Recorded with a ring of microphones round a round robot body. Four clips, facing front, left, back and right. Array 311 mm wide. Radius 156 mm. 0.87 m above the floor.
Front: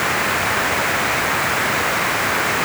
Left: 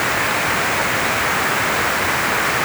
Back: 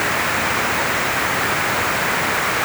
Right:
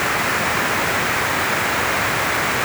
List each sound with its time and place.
Only background noise.